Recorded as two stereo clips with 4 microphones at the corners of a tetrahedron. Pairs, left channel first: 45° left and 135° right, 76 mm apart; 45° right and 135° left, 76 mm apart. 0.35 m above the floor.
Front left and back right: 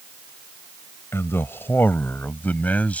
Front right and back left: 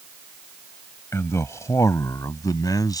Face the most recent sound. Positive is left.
turn(degrees=-25)